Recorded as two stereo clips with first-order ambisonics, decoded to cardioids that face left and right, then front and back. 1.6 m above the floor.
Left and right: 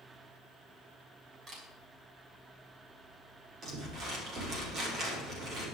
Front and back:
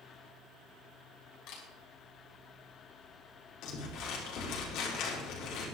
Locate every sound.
1.5 s a camera shutter: 30° right, 5 m
3.6 s crumpling: 35° right, 4.5 m